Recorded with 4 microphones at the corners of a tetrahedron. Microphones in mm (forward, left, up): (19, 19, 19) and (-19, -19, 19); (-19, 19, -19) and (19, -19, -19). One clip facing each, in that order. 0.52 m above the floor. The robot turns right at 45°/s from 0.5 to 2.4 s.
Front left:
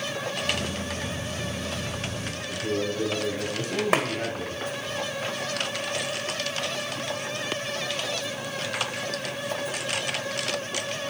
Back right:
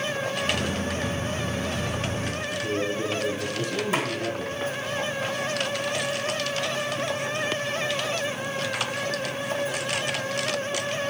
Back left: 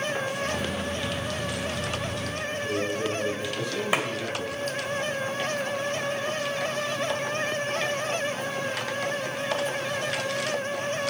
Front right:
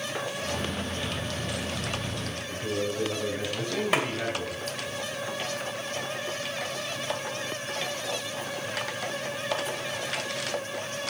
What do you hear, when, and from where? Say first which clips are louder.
2.5 s a man speaking: front left 1 dB, back left 1 dB; 15° left, 3.5 m
3.9 s a clap: front left 4 dB, even; 55° left, 2.5 m